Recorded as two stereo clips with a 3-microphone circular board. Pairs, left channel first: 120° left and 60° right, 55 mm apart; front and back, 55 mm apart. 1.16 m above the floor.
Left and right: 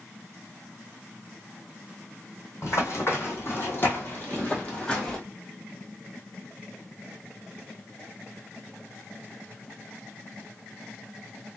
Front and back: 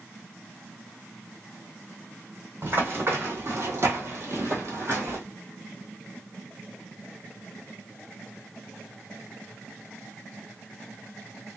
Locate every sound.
2.6 s running footsteps: 145° left, 2.5 m; by 5.2 s 165° right, 1.7 m